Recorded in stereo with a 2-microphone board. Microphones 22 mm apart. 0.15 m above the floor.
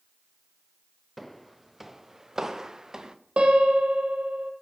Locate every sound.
1.2 s footsteps: 5° left (ahead or behind), 0.8 m; by 3.1 s 25° right (ahead or behind), 1.7 m
3.4 s a piano: 60° right (ahead or behind), 2 m